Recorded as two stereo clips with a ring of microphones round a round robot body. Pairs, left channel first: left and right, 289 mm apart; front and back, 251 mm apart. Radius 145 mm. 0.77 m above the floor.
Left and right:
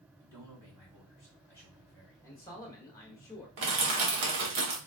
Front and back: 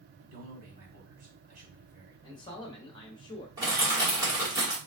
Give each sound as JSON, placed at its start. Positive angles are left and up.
{"t": 0.2, "sound": "a man speaking", "azimuth_deg": -170, "distance_m": 1.9}
{"t": 2.2, "sound": "a man speaking", "azimuth_deg": 30, "distance_m": 0.9}
{"t": 3.6, "sound": "crushing", "azimuth_deg": -100, "distance_m": 1.4}